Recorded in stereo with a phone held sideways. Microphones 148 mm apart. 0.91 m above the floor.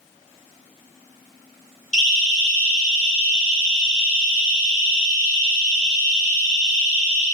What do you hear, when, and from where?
1.9 s a siren: 55° left (ahead or behind), 5.5 m; by 7.2 s 20° left (ahead or behind), 8 m